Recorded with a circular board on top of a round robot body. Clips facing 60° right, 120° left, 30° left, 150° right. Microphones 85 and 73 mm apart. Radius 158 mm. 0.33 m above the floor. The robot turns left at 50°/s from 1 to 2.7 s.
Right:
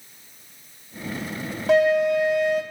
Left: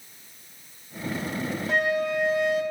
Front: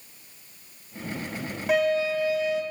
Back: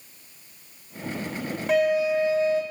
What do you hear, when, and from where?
1.7 s a flute: 55° right, 1.5 m; by 2.6 s 105° right, 1.5 m